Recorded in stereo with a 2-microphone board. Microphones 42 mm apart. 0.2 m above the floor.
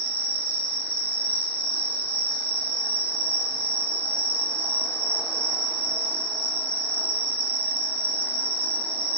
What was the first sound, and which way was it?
An insect, 30° left (ahead or behind).